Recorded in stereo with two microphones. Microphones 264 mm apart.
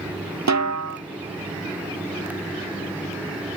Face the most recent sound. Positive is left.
turn(degrees=-90)